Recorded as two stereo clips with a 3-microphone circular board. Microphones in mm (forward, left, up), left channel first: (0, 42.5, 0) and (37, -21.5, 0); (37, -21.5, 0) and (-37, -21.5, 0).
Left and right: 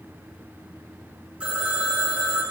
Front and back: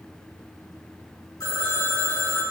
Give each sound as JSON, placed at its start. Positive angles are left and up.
{"t": 1.4, "sound": "a phone ringing", "azimuth_deg": 15, "distance_m": 1.6}